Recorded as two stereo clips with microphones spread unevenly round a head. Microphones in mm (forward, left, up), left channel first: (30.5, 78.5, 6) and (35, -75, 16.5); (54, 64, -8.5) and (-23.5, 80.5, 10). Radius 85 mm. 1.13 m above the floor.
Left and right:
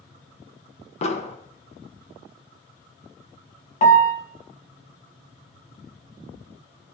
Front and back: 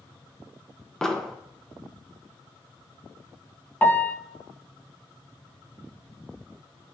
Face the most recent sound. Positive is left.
turn(degrees=55)